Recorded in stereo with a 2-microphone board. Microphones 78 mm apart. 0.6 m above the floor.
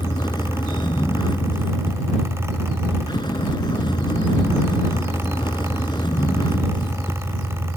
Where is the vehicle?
75° left (ahead or behind).